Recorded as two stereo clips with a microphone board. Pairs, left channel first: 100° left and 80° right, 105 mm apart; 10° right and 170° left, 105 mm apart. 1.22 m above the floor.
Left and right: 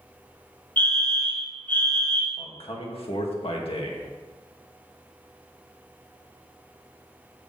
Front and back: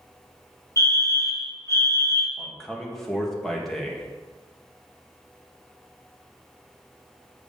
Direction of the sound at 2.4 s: 75° left.